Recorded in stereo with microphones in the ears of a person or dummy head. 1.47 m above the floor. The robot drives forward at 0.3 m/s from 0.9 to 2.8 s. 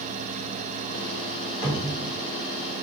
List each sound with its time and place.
1.6 s a cupboard door: 70° left (ahead or behind), 1.6 m